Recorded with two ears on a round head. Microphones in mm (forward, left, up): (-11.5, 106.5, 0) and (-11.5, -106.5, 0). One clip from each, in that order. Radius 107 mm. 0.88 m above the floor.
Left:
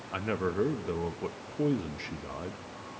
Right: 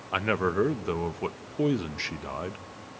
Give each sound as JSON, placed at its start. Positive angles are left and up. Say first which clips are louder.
{"t": 0.1, "sound": "a man speaking", "louder": "right 5 dB", "side_deg": -35, "distance_m": 0.7}